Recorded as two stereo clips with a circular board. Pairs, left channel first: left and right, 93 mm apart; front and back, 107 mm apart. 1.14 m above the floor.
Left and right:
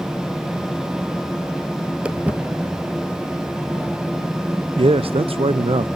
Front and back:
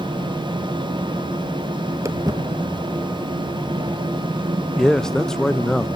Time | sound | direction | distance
2.0 | footsteps | 160° right | 1.3 m
4.8 | a man speaking | 85° right | 0.5 m